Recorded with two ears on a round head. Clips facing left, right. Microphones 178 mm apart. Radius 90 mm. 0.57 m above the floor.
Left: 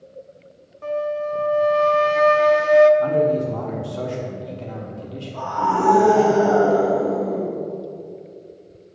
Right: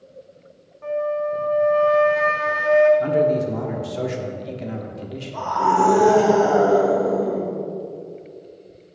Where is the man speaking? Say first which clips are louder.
Even; 20° right (ahead or behind), 1.0 m.